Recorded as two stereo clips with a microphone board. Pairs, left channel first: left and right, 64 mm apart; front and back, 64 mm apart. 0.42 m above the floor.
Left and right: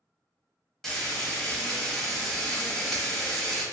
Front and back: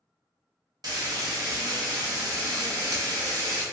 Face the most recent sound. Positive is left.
turn(degrees=170)